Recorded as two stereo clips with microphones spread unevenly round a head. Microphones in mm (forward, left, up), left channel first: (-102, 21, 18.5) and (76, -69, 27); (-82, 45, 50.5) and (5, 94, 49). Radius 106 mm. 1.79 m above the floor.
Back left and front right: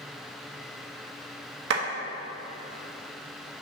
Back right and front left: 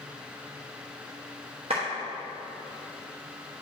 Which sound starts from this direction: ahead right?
A clap, at 1.7 s.